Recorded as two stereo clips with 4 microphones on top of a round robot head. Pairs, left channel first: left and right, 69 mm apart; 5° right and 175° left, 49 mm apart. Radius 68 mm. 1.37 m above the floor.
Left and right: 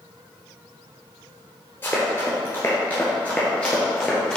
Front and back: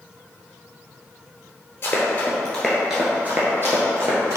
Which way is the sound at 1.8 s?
20° left.